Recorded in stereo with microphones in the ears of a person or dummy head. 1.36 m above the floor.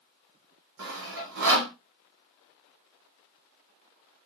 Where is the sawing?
65° right (ahead or behind), 1.2 m.